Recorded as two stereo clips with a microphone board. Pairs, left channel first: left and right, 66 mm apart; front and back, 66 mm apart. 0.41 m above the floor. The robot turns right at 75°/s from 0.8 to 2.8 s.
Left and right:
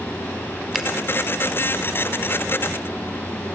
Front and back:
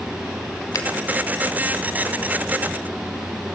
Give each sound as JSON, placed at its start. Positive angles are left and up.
{"t": 0.8, "sound": "a finger snap", "azimuth_deg": -5, "distance_m": 3.0}